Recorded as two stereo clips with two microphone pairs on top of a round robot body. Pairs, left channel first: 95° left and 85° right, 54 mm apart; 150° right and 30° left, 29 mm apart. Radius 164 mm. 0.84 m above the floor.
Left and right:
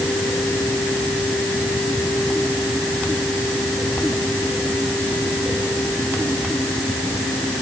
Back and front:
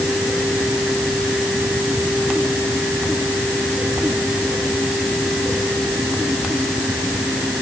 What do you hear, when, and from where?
Only background noise.